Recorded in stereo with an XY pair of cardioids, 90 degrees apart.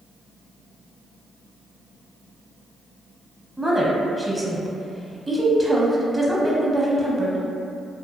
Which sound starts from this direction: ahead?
A woman speaking, at 3.6 s.